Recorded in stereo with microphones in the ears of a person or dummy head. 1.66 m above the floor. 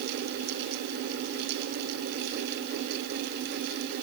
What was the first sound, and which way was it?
Only background noise.